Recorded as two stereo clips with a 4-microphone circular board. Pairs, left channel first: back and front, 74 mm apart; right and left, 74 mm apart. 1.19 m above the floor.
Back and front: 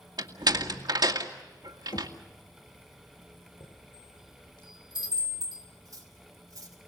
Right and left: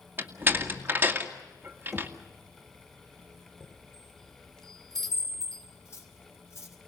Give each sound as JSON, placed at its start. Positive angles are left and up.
{"t": 0.2, "sound": "a door slam", "azimuth_deg": 25, "distance_m": 2.0}
{"t": 1.9, "sound": "knocking", "azimuth_deg": 180, "distance_m": 1.7}
{"t": 3.6, "sound": "a chime", "azimuth_deg": -175, "distance_m": 4.5}
{"t": 5.8, "sound": "cutlery clinking", "azimuth_deg": -40, "distance_m": 5.0}